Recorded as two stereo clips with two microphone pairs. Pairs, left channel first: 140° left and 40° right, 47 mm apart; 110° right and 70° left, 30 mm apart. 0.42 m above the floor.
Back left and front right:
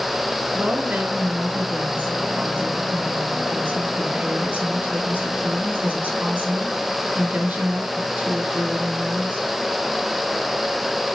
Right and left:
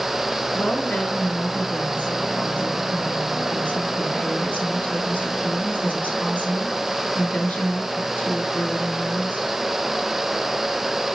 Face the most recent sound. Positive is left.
turn(degrees=-90)